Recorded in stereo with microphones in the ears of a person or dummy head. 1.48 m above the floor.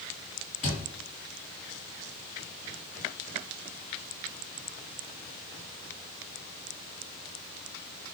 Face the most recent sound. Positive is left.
turn(degrees=45)  # may be behind; listen again after turning